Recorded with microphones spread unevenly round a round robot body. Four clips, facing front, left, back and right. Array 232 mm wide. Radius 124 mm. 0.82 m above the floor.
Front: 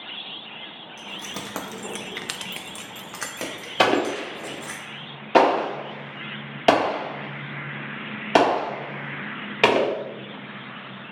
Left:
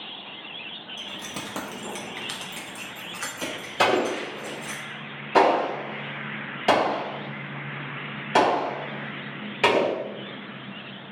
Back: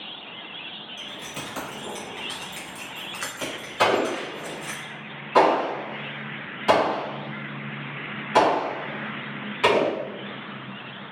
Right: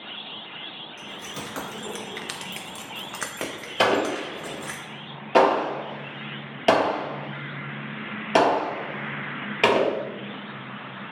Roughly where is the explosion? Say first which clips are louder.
Even, front 1 dB; ahead.